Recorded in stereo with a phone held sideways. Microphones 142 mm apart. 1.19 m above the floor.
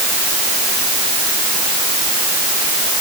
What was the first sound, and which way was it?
Only background noise.